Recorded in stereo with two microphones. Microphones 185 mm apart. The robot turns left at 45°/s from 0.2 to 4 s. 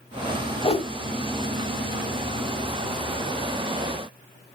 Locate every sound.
0.6 s a whoosh: 30° left (ahead or behind), 1.0 m; by 0.9 s 35° left (ahead or behind), 1.0 m